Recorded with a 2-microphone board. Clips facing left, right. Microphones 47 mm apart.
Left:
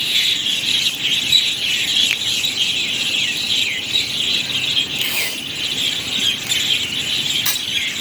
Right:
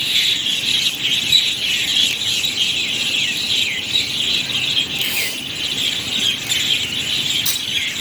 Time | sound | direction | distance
2.1 | a finger snap | 60° left (ahead or behind) | 1.2 m
5.0 | tape being pulled | 70° left (ahead or behind) | 7.5 m